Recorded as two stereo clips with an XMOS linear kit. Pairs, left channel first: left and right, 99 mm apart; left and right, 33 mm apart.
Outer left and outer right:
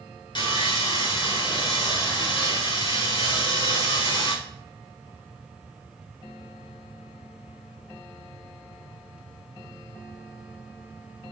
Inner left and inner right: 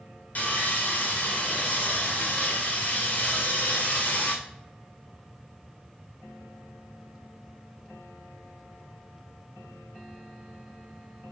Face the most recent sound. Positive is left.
turn(degrees=55)  # may be behind; listen again after turning